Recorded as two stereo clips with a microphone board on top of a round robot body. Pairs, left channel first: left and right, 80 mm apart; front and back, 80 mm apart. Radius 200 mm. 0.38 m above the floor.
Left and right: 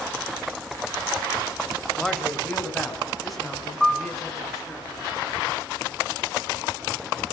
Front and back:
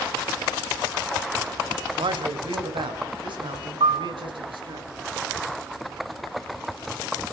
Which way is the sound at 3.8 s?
Straight behind.